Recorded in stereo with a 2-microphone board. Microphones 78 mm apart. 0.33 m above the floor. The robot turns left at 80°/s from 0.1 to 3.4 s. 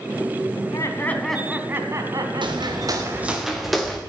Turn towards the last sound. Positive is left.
turn(degrees=5)  # may be behind; listen again after turning